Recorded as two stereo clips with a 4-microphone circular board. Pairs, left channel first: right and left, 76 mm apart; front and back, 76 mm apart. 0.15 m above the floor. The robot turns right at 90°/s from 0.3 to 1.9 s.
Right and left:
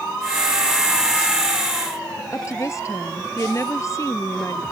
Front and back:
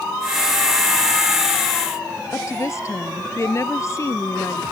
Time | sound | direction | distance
2.3 | a woman speaking | 45° right | ?